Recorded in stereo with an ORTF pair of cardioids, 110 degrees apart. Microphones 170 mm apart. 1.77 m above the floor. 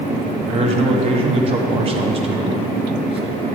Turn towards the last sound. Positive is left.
turn(degrees=-35)